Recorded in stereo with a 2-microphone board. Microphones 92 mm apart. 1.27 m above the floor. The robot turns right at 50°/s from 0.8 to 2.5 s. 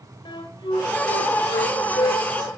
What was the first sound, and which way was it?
A flute, 60° left (ahead or behind).